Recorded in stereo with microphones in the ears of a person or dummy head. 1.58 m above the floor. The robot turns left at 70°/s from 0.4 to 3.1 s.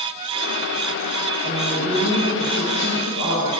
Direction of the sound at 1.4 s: 145° right.